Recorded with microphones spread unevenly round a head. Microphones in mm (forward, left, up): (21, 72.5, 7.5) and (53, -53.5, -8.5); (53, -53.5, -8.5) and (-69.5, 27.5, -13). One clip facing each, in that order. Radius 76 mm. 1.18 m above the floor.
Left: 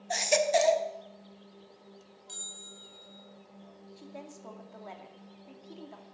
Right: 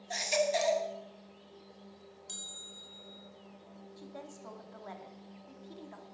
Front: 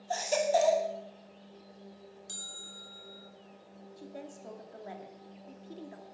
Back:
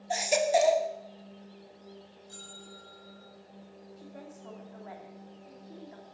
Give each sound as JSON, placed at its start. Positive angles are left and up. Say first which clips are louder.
{"t": 0.1, "sound": "a baby crying", "louder": "left 5 dB, back 2 dB", "azimuth_deg": 70, "distance_m": 1.4}
{"t": 2.3, "sound": "a bell", "louder": "left 1 dB, back 3 dB", "azimuth_deg": -30, "distance_m": 4.0}
{"t": 4.0, "sound": "a woman speaking", "louder": "left 1 dB, front 3 dB", "azimuth_deg": 30, "distance_m": 2.5}